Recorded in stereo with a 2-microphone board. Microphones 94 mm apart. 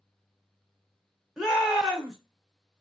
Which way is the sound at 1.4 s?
5° right (ahead or behind).